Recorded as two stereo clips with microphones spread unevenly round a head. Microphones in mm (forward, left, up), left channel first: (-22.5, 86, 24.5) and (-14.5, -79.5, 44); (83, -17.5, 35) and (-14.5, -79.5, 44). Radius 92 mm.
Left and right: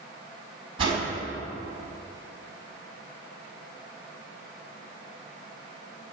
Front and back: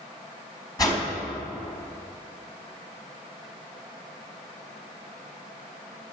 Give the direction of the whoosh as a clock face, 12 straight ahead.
1 o'clock.